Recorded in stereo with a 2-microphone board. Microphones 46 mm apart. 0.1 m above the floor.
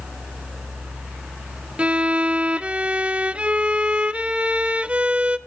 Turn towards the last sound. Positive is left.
turn(degrees=-25)  # may be behind; listen again after turning